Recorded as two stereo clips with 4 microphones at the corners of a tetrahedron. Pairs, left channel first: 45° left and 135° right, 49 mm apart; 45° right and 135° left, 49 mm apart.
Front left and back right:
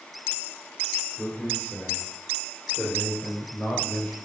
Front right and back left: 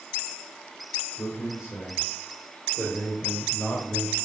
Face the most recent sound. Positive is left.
turn(degrees=-15)